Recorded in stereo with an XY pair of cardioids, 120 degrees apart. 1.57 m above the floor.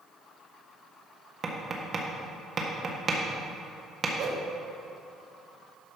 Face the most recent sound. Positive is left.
turn(degrees=-55)